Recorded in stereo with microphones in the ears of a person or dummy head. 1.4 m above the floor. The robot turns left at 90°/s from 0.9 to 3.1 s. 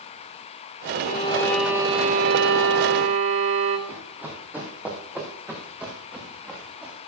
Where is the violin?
50° left, 1.3 m; by 3.8 s 135° right, 1.3 m.